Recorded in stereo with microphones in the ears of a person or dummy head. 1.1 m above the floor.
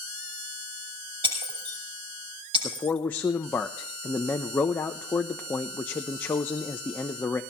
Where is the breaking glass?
30° right (ahead or behind), 7 m.